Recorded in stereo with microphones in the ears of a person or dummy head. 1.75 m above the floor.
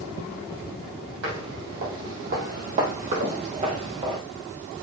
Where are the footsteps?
60° right (ahead or behind), 4.5 m; by 4.2 s 30° right (ahead or behind), 2 m.